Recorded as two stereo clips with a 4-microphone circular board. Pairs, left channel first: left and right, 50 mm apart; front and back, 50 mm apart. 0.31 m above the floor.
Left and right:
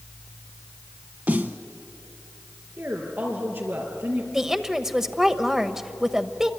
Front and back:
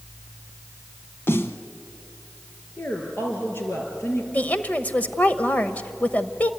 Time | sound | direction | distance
1.3 | a snare drum | 40° right | 1.0 m
2.8 | a woman speaking | 50° right | 5 m
4.3 | a woman speaking | 20° right | 1.1 m